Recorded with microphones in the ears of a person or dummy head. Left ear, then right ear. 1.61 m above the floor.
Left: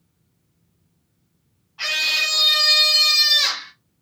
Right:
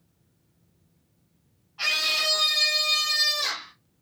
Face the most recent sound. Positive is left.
turn(degrees=75)  # may be behind; listen again after turning